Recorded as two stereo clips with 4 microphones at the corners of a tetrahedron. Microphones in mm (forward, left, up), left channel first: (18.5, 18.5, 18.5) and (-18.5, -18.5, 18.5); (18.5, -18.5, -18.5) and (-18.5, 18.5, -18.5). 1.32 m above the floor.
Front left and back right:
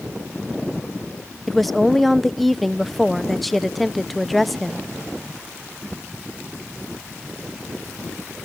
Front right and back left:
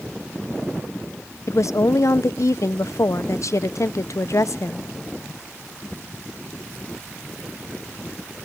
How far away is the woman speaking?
About 0.7 m.